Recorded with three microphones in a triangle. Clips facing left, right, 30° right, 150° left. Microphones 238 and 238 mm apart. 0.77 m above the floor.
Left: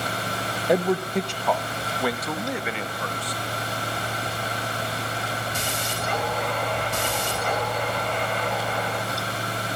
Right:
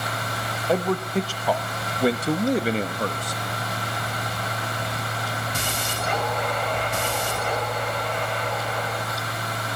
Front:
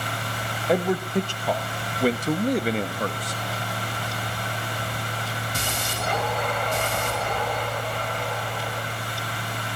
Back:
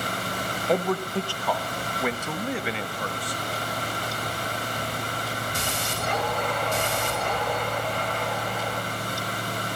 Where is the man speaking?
45° left, 1.1 m; by 3.4 s 65° right, 1.7 m.